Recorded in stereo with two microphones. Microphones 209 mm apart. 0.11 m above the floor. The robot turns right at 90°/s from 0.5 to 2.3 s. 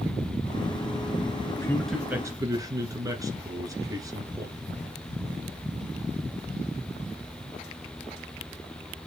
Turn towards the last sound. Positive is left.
turn(degrees=-145)